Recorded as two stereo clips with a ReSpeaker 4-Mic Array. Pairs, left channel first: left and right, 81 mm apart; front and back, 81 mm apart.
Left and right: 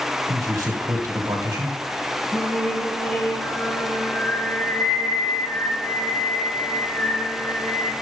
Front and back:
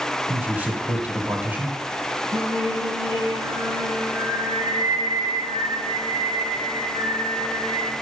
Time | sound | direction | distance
0.3 | a man speaking | 130° right | 1.6 m
2.3 | singing | 160° left | 2 m